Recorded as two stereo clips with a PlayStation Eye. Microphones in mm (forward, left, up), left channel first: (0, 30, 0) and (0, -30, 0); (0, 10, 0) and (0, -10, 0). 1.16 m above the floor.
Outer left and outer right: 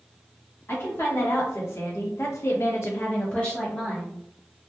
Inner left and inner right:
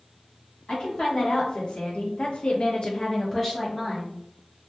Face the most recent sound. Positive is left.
turn(degrees=0)  # may be behind; listen again after turning